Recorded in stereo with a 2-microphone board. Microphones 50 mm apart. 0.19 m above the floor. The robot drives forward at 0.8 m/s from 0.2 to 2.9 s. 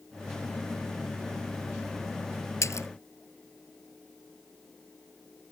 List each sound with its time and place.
2.6 s a splash: 75° left (ahead or behind)